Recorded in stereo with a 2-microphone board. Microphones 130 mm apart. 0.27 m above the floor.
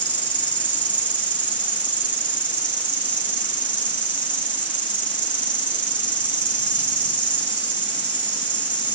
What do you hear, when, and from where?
0.0 s an insect: 40° left (ahead or behind), 5 m